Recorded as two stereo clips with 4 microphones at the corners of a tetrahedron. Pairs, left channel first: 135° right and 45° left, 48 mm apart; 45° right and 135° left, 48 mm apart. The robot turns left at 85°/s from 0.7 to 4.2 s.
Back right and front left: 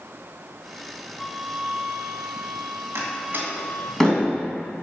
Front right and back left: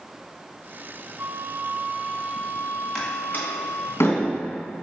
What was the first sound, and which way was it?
A flute, 145° left.